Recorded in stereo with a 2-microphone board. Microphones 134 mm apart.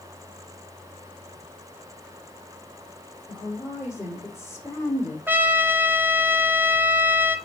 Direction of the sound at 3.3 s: 20° left (ahead or behind).